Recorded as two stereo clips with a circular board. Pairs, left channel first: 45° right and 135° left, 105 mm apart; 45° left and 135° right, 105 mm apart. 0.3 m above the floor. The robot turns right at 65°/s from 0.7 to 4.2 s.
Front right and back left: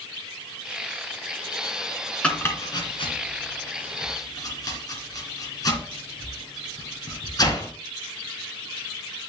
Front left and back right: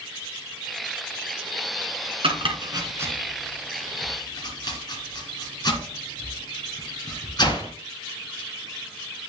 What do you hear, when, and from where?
2.2 s chopping: 125° right, 2.5 m; by 7.7 s 5° left, 2.5 m